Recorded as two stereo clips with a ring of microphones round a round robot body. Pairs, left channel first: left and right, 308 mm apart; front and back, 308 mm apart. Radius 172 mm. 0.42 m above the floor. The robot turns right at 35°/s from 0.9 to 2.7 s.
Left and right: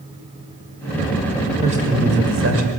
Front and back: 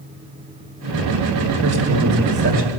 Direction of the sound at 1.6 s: 160° right.